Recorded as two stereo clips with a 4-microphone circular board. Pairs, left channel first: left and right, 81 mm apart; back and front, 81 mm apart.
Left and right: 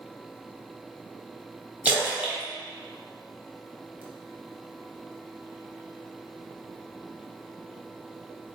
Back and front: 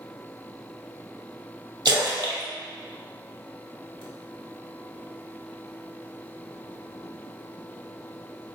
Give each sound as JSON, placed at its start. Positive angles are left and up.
{"t": 1.9, "sound": "a splash", "azimuth_deg": -20, "distance_m": 0.8}